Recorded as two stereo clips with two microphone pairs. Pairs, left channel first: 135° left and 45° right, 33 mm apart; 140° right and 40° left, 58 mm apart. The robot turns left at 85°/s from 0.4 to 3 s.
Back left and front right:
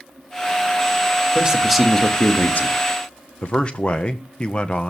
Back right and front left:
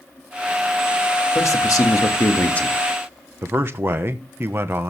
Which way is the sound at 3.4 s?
85° left.